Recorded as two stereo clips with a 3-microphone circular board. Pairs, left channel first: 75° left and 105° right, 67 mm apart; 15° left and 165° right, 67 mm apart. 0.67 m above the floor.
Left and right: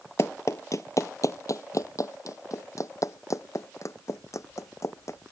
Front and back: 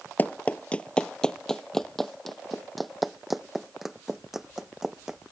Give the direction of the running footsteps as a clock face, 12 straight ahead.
10 o'clock.